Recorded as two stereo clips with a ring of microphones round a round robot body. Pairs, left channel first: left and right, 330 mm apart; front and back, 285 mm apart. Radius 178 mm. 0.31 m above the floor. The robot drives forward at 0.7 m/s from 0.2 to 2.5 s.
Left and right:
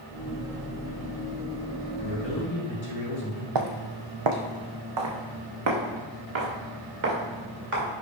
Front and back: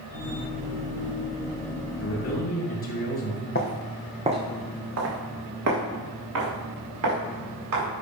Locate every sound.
2.0 s a man speaking: 25° left, 2.5 m; by 3.5 s 30° left, 2.5 m
3.5 s footsteps: 65° right, 1.0 m; by 7.9 s 150° right, 5 m